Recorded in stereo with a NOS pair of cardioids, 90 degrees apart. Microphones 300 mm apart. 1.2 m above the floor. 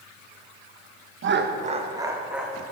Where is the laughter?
45° right, 0.8 m; by 2.6 s straight ahead, 1.5 m.